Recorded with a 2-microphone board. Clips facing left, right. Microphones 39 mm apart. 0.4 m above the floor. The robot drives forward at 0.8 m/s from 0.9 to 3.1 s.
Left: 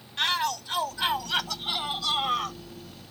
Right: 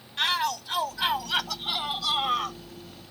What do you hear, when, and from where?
0.2 s a shout: centre (ahead or behind); by 2.6 s 5° right (ahead or behind)